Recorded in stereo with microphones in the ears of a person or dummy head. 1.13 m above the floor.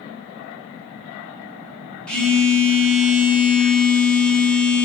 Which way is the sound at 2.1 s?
5° left (ahead or behind).